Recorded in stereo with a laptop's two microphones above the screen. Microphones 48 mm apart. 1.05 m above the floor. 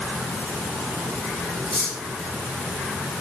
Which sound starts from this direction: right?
Cutlery clinking, at 1.6 s.